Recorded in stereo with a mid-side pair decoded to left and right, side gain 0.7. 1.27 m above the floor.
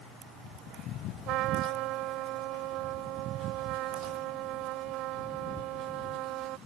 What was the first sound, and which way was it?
A trumpet, 60° right.